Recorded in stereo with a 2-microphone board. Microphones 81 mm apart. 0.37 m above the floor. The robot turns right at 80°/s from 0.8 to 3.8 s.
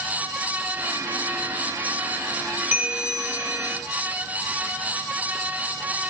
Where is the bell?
25° right, 0.6 m; by 3.8 s 65° left, 0.6 m.